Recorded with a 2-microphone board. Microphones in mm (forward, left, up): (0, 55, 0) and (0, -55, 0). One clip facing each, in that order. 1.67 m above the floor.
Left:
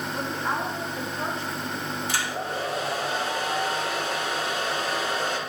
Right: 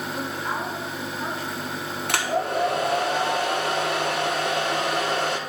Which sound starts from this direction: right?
A hair dryer, at 2.1 s.